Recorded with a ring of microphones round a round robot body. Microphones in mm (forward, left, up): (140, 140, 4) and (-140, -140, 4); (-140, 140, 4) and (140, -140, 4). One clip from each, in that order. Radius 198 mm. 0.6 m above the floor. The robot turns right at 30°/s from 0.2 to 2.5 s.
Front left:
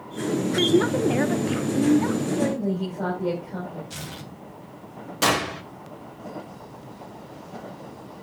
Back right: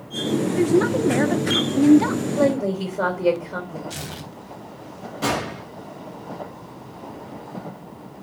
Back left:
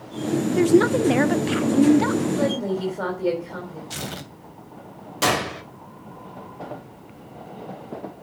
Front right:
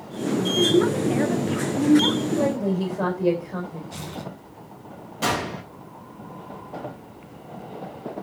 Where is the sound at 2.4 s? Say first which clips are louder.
Back right 6 dB, even; 145° right, 4 m; by 3.8 s 140° right, 4 m.